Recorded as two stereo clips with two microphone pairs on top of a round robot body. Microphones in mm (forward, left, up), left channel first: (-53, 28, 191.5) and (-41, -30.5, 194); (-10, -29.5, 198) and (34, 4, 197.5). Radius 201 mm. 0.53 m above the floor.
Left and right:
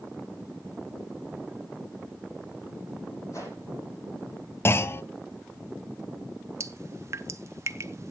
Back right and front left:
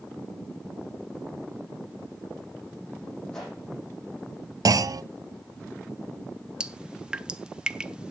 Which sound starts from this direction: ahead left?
A clunk, at 4.7 s.